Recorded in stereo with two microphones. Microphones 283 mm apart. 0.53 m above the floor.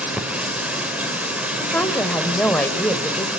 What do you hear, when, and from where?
0.0 s running water: 5° right (ahead or behind), 1.9 m
1.6 s a woman speaking: 5° left (ahead or behind), 1.8 m